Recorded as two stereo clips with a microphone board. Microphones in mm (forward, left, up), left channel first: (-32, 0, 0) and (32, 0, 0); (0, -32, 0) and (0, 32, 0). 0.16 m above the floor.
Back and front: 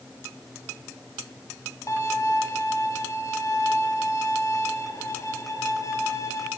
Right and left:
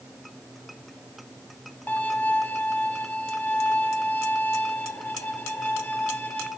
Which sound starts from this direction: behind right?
A violin, at 1.9 s.